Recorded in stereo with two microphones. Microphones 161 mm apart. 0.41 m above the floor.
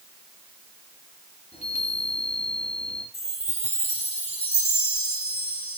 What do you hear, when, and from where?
1.5 s a chime: 40° left (ahead or behind), 2.5 m
3.1 s a chime: 35° left (ahead or behind), 1.1 m